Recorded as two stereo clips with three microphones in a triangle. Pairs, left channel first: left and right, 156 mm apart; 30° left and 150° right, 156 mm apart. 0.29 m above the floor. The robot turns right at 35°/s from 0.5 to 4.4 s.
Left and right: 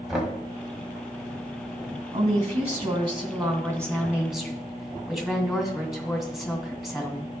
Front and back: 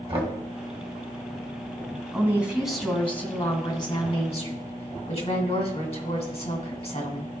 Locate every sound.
0.1 s knocking: 175° right, 1.8 m
2.1 s a woman speaking: 80° right, 2.5 m; by 7.3 s straight ahead, 2.5 m